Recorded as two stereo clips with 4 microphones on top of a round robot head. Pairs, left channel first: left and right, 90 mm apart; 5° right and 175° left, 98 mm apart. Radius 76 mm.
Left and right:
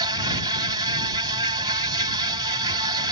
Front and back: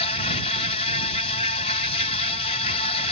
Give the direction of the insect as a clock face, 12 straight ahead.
1 o'clock.